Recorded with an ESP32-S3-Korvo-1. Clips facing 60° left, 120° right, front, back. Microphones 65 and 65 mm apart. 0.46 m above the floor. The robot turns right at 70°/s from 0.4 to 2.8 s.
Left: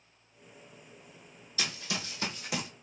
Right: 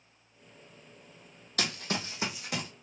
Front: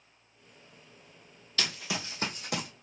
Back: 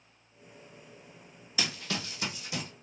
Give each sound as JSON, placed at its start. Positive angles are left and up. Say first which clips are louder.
{"t": 1.6, "sound": "running footsteps", "louder": "right 3 dB, even", "azimuth_deg": -105, "distance_m": 1.0}